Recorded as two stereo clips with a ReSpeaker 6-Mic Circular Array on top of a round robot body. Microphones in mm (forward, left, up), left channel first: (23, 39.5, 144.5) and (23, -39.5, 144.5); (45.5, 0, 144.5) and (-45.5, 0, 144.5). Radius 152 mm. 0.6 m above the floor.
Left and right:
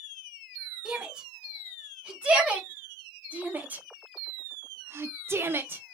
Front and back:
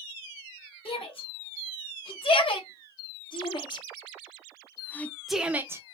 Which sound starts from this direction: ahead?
A shout, at 0.8 s.